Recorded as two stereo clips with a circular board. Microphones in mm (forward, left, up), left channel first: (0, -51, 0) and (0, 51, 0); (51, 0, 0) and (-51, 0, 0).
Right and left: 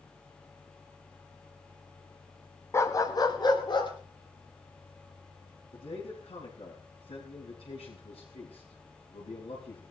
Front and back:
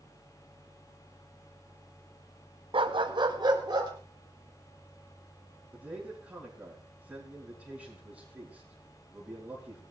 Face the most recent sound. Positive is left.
turn(degrees=-100)